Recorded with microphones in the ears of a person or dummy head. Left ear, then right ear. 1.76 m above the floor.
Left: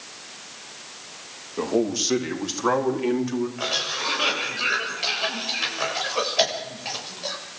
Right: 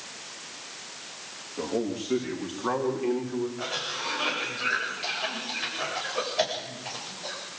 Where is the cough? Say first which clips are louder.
Left 6 dB; 30° left (ahead or behind), 8.5 m.